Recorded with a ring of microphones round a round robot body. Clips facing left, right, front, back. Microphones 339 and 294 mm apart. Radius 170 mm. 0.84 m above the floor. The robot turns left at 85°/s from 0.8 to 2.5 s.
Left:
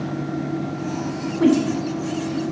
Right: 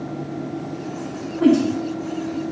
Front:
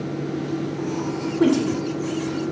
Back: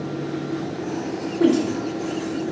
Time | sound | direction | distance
1.4 | a woman speaking | 80° left | 3.5 m